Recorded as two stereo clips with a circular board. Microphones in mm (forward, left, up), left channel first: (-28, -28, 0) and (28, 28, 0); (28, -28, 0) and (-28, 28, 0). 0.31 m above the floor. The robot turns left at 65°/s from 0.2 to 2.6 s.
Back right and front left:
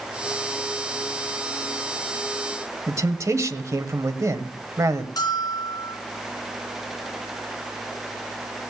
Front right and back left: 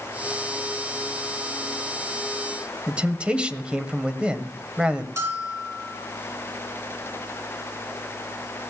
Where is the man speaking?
65° left, 1.1 m.